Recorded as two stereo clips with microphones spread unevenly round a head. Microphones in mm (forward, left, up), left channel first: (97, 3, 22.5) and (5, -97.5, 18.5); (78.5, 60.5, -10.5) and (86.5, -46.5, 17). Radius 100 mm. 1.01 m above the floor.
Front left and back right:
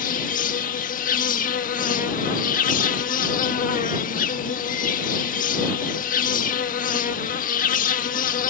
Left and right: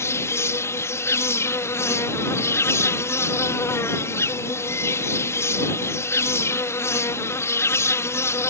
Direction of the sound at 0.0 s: 30° left.